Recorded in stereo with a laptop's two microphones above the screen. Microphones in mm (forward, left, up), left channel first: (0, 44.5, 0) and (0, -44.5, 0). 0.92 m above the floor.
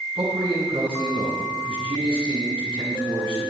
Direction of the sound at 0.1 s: 80° right.